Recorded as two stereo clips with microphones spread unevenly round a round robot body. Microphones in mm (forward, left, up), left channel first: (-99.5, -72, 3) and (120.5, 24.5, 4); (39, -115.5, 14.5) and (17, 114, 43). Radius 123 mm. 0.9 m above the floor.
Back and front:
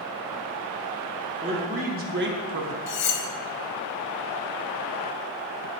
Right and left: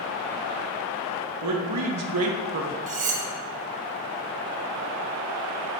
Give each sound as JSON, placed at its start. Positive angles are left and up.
{"t": 1.4, "sound": "a man speaking", "azimuth_deg": 95, "distance_m": 1.4}
{"t": 2.9, "sound": "cutlery clinking", "azimuth_deg": 155, "distance_m": 0.7}